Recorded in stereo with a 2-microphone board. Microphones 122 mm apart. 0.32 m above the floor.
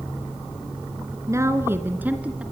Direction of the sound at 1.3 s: 25° right (ahead or behind).